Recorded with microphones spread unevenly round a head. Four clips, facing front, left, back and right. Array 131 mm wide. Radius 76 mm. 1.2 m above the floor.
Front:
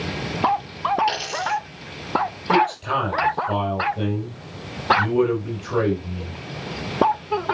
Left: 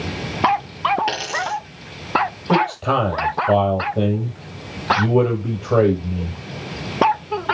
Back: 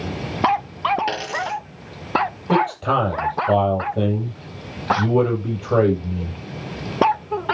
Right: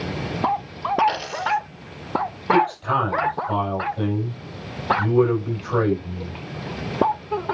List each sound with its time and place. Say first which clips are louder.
1.1 s a dropped coin: right 1 dB, front 1 dB; 145° left, 8 m
2.5 s a man speaking: even, even; 120° left, 8.5 m